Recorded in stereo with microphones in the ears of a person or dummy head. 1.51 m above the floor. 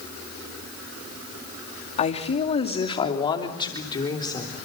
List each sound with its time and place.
2.0 s a woman speaking: 35° left (ahead or behind), 2.5 m; by 4.5 s 20° left (ahead or behind), 4 m